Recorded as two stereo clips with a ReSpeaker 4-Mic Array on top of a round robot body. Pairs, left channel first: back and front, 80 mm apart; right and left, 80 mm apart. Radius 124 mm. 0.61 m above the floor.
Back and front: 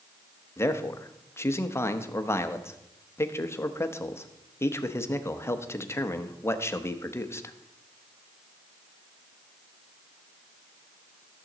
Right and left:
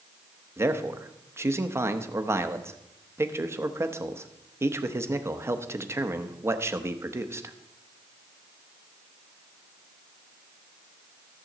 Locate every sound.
0.6 s a man speaking: 135° left, 1.0 m